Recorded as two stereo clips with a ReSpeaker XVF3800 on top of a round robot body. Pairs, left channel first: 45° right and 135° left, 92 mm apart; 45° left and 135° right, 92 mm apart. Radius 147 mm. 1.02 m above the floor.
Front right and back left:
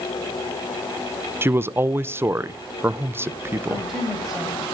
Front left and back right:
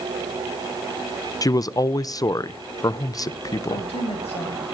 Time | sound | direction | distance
1.4 | a man speaking | 80° left | 0.6 m
3.7 | a woman speaking | 50° left | 6.5 m